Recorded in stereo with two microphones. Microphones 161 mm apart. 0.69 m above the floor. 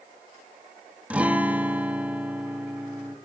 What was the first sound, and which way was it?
A guitar, 10° right (ahead or behind).